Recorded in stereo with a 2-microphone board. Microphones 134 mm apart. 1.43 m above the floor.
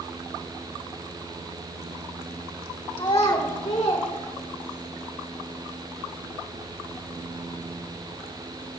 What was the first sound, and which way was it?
A child speaking, 35° left (ahead or behind).